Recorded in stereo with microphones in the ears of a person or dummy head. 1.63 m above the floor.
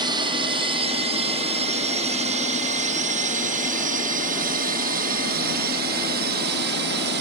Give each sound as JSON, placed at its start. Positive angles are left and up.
{"t": 0.0, "sound": "a drone", "side_deg": -25}